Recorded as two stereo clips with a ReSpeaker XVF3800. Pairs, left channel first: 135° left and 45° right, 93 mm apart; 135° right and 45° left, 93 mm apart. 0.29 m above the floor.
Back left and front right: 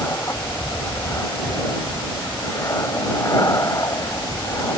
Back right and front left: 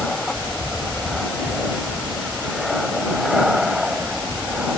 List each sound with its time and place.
0.0 s an aircraft: 150° left; by 4.8 s 120° left